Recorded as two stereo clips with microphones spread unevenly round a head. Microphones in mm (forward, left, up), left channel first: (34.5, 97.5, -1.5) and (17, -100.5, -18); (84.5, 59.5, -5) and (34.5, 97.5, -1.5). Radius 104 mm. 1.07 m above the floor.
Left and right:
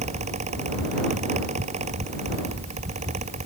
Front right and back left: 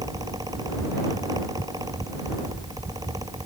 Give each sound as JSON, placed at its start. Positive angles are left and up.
{"t": 0.0, "sound": "a fan", "azimuth_deg": -155}